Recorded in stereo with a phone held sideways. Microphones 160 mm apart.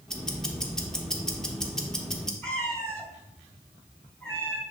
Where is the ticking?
5° left (ahead or behind), 0.9 m.